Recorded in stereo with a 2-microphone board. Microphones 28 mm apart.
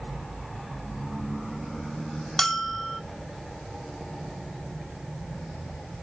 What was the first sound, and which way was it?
A bell, 10° left (ahead or behind).